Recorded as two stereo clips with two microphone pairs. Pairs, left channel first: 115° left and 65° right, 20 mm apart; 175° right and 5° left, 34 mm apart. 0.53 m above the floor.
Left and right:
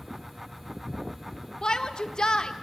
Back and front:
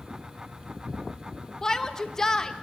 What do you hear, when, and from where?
1.6 s a shout: 120° left, 1.0 m